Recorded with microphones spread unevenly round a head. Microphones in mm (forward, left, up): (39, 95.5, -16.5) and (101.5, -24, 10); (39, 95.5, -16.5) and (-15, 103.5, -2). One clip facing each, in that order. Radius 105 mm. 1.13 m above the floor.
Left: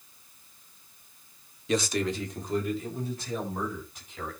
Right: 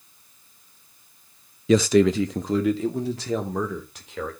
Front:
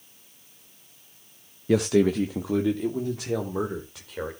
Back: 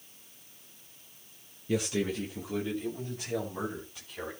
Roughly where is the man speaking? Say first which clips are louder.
Right 11 dB, front 10 dB; ahead right.